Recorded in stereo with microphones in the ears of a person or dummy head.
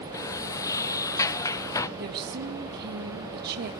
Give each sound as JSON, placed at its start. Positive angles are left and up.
{"t": 0.1, "sound": "a sliding door", "side_deg": 15, "distance_m": 0.6}
{"t": 2.0, "sound": "a woman speaking", "side_deg": -55, "distance_m": 2.0}